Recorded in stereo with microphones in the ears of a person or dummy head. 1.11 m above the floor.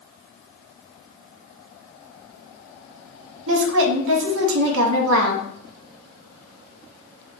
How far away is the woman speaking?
About 0.8 m.